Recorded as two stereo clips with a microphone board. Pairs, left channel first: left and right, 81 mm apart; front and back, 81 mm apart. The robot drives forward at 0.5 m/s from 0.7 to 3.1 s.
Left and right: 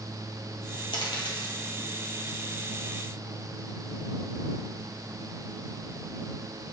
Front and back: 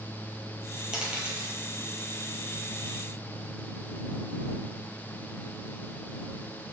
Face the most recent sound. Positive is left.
turn(degrees=125)